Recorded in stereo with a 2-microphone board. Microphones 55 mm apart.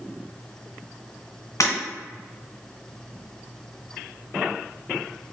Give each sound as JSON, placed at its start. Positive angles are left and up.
{"t": 1.6, "sound": "breaking glass", "side_deg": 70, "distance_m": 2.0}